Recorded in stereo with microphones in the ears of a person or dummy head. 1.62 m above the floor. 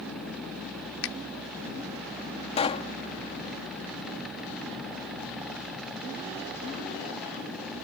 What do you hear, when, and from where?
1.0 s a finger snap: 75° left (ahead or behind)
2.6 s a pop: 40° left (ahead or behind)